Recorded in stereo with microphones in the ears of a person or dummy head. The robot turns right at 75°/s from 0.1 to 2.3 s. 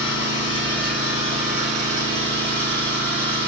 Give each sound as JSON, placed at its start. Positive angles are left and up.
{"t": 0.0, "sound": "an engine running", "azimuth_deg": 120, "distance_m": 1.9}